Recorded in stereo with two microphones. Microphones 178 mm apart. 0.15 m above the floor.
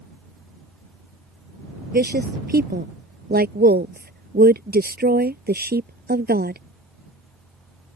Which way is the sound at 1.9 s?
65° right (ahead or behind).